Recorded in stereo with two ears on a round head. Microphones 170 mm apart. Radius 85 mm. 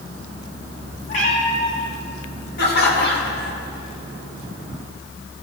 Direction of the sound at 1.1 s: 40° left (ahead or behind).